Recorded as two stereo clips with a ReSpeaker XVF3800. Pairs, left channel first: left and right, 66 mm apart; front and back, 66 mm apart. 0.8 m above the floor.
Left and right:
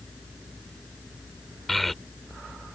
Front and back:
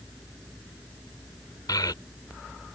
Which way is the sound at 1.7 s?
Straight ahead.